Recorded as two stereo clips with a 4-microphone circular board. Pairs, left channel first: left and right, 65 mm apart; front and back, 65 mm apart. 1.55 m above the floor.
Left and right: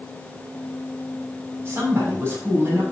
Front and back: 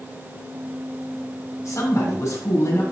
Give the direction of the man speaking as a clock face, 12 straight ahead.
1 o'clock.